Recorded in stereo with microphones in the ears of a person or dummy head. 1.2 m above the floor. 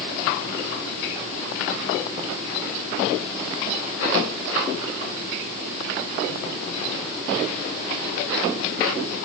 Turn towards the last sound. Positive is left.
No sound to turn to.